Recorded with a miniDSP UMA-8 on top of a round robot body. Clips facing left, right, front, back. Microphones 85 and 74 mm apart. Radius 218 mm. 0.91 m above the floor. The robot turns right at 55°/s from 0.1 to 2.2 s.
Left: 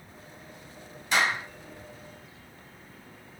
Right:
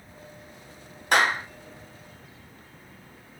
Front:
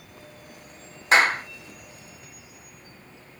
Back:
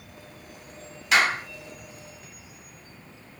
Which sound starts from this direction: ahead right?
A clap, at 1.1 s.